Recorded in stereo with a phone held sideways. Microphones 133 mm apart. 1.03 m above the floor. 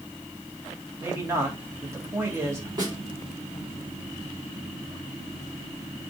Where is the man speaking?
20° right (ahead or behind), 2.5 m.